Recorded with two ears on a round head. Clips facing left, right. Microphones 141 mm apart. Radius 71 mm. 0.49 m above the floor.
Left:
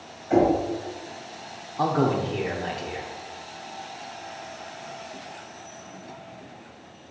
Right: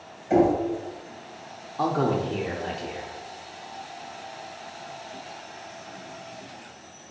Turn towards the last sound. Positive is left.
turn(degrees=5)  # may be behind; listen again after turning